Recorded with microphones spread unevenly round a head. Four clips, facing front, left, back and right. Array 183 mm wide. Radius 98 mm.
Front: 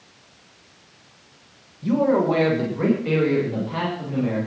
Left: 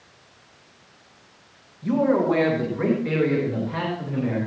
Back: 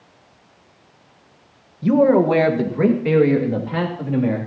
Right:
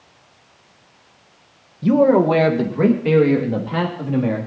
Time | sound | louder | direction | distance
1.8 | a man speaking | right 6 dB, back 5 dB | 125° right | 1.4 m